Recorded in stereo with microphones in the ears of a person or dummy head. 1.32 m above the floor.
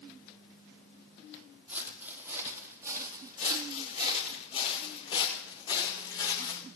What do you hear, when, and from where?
1.7 s footsteps: 10° right (ahead or behind), 3.5 m; by 4.4 s 30° right (ahead or behind), 2.5 m
3.4 s footsteps: 40° left (ahead or behind), 5.5 m; by 6.6 s 15° left (ahead or behind), 5.5 m